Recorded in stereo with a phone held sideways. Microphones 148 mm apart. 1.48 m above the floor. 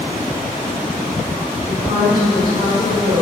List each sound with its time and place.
1.7 s a woman speaking: 60° right (ahead or behind), 3 m; by 3.2 s 80° right, 3 m